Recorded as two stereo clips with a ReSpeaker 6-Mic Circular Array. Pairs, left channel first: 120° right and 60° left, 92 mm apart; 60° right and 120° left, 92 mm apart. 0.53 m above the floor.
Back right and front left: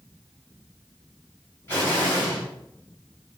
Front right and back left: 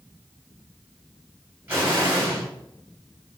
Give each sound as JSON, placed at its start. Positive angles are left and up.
{"t": 1.7, "sound": "an explosion", "azimuth_deg": 175, "distance_m": 2.5}